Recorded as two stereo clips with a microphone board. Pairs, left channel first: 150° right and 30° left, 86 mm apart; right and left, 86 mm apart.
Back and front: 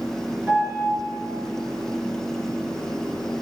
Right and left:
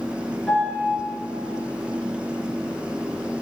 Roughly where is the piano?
Ahead.